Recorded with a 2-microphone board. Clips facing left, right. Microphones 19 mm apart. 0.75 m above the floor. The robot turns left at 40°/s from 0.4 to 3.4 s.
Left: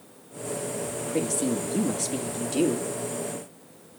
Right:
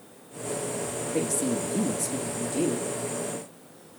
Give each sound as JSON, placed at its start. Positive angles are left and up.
{"t": 1.0, "sound": "a woman speaking", "azimuth_deg": 175, "distance_m": 1.2}